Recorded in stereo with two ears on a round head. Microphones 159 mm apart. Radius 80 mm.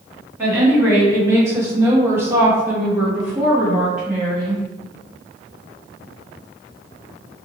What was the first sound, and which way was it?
A woman speaking, 15° right (ahead or behind).